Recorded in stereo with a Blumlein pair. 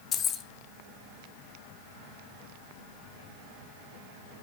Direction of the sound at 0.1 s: 25° left.